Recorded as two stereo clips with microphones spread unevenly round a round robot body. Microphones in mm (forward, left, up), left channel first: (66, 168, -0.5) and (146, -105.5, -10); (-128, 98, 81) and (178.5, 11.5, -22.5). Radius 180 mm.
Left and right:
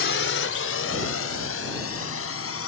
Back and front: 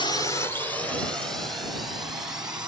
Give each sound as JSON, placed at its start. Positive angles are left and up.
{"t": 0.0, "sound": "a drone", "azimuth_deg": 75}